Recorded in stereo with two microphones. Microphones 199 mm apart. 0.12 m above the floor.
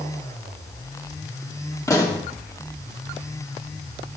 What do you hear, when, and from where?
1.9 s a pop: 15° left (ahead or behind), 2.5 m